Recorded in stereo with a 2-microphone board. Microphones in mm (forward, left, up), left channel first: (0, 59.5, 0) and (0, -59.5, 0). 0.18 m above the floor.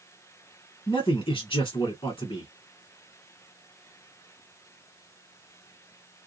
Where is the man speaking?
45° left (ahead or behind), 1.7 m.